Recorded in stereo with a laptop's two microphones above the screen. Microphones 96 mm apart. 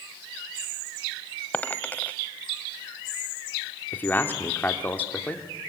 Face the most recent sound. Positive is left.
turn(degrees=20)  # may be behind; listen again after turning